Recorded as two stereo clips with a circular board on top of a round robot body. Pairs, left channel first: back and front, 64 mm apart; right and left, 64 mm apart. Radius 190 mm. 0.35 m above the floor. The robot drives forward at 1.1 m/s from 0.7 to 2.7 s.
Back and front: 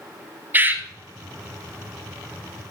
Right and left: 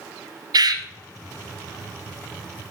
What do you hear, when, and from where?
0.5 s a bird: 65° left, 0.9 m; by 0.8 s 75° left, 0.8 m